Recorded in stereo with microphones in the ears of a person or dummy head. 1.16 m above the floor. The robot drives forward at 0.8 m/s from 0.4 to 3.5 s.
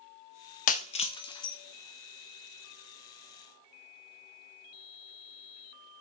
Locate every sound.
0.7 s breaking glass: 40° left (ahead or behind), 0.5 m; by 1.6 s 15° left (ahead or behind), 1.1 m